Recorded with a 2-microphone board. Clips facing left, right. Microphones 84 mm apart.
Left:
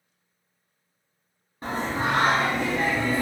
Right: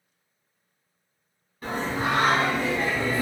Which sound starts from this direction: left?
Singing, at 1.6 s.